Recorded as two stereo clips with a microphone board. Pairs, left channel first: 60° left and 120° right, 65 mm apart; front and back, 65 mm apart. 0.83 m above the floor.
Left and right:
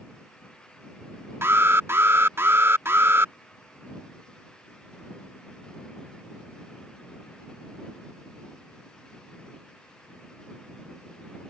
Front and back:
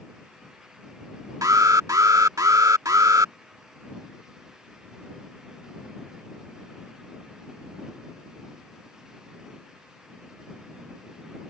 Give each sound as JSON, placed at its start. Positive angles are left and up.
{"t": 1.4, "sound": "an alarm", "azimuth_deg": -165}